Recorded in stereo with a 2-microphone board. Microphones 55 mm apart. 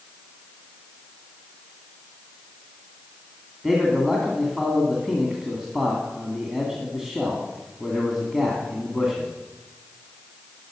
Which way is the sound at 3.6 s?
10° right (ahead or behind).